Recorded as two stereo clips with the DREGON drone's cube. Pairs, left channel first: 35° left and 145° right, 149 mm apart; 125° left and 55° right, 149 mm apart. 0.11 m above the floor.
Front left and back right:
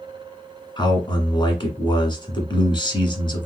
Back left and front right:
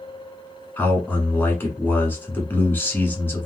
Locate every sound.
0.8 s a man speaking: 55° left, 1.2 m